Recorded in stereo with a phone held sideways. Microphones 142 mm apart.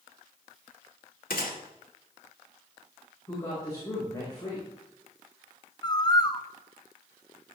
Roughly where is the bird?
Left.